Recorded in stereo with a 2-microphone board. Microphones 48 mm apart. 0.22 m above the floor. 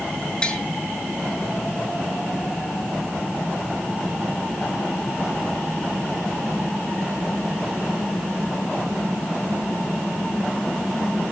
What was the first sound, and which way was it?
Tapping, 20° left (ahead or behind).